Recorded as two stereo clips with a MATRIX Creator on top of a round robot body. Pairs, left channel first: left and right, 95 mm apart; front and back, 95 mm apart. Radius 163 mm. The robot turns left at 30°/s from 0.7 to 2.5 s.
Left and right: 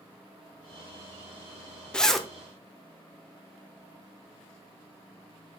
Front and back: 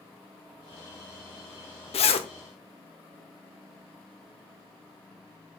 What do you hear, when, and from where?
1.9 s a zipper: 10° left, 0.9 m; by 2.3 s straight ahead, 0.9 m